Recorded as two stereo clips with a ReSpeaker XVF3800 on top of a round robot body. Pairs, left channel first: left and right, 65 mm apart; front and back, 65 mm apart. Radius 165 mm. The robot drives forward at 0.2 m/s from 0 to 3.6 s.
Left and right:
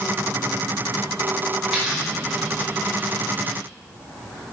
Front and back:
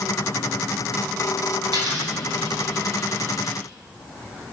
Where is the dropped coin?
175° right, 2.5 m.